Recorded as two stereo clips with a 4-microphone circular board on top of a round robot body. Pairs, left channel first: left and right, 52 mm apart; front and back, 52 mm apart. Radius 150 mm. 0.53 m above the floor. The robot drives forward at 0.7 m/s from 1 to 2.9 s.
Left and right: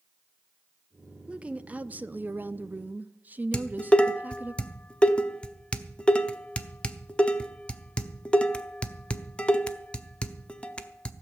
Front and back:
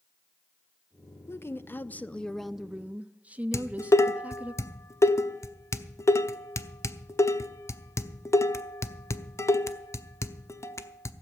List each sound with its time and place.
1.3 s a woman speaking: 25° right, 1.1 m; by 4.5 s 130° right, 0.8 m
3.5 s dishes clattering: 20° left, 1.0 m